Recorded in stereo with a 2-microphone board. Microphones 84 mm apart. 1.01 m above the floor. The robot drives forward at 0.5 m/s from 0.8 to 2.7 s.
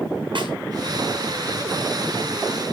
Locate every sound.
0.3 s a snare drum: 75° right (ahead or behind), 6.5 m